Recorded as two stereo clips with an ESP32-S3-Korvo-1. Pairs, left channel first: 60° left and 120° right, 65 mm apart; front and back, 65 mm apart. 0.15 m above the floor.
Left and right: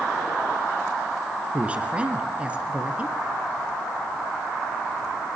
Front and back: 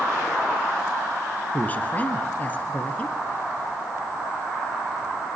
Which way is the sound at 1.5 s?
55° right.